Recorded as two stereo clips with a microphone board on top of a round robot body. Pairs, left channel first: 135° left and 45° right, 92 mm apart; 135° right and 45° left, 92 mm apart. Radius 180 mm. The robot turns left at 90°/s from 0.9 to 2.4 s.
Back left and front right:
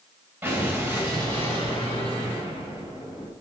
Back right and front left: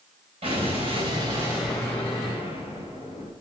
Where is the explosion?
30° left, 3.5 m; by 3.3 s 105° right, 3.5 m.